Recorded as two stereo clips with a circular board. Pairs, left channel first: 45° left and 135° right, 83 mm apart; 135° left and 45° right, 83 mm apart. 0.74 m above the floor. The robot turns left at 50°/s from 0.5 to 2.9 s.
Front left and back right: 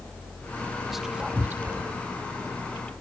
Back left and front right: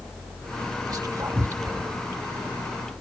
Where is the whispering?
45° right, 0.9 m; by 2.0 s 100° right, 0.9 m.